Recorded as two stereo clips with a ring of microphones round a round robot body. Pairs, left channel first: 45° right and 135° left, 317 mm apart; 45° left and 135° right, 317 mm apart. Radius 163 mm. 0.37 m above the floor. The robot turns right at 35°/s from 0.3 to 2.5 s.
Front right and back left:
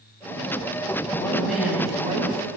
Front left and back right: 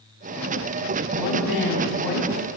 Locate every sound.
1.1 s a woman speaking: 30° left, 3.5 m; by 2.5 s 80° left, 3.5 m